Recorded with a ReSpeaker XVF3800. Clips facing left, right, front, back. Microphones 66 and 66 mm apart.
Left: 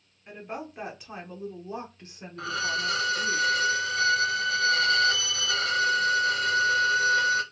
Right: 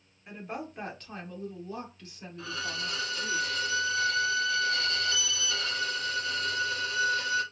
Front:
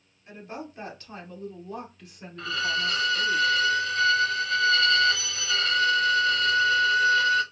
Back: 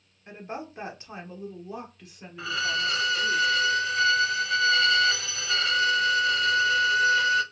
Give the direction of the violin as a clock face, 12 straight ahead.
9 o'clock.